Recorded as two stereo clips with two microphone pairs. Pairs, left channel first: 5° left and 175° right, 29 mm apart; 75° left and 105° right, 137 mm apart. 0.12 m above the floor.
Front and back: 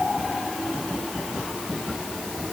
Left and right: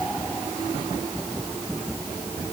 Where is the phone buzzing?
No phone buzzing in this recording.